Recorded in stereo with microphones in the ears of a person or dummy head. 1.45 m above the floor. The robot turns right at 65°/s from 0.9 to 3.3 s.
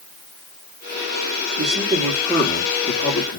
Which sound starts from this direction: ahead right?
A man speaking, at 1.6 s.